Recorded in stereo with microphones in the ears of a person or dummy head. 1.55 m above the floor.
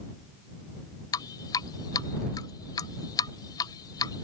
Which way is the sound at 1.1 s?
25° left (ahead or behind).